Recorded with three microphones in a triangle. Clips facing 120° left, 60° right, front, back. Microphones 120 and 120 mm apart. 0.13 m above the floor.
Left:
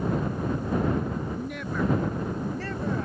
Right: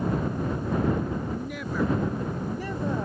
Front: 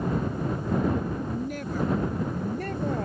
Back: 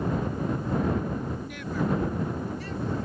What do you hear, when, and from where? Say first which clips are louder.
1.3 s a woman speaking: even, front 3 dB; 35° left; by 3.0 s 10° left